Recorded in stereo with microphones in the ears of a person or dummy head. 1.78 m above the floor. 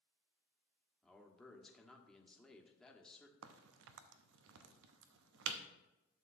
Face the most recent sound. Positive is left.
turn(degrees=-75)  # may be behind; listen again after turning